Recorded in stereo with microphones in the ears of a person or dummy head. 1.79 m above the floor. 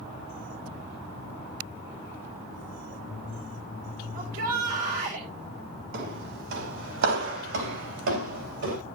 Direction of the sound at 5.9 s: 70° right (ahead or behind).